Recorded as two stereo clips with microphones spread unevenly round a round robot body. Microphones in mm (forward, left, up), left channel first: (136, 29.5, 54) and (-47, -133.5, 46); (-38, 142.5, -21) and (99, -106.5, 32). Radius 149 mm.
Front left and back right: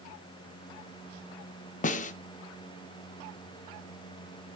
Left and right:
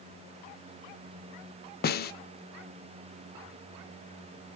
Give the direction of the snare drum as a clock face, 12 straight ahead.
9 o'clock.